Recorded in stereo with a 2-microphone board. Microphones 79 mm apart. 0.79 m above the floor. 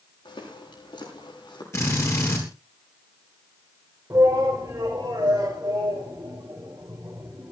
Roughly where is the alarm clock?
I don't hear an alarm clock.